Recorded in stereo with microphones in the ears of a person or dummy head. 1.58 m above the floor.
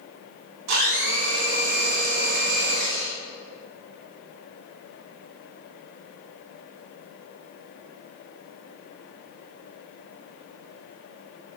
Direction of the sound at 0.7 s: 80° right.